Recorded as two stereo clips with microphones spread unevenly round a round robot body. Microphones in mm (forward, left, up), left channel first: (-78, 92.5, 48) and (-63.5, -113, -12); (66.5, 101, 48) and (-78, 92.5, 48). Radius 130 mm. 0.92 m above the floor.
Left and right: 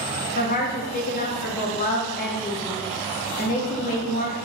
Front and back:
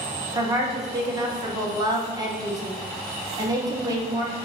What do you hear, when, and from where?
0.3 s a woman speaking: 140° left, 0.7 m